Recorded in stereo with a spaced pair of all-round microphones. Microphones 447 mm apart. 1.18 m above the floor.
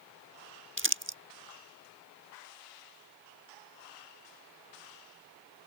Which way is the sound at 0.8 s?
25° right (ahead or behind).